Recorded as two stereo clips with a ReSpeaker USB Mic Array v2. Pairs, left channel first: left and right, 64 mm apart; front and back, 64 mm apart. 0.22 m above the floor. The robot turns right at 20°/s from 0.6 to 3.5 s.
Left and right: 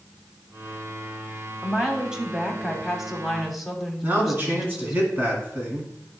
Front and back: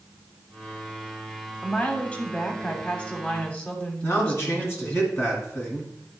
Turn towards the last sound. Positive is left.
turn(degrees=-40)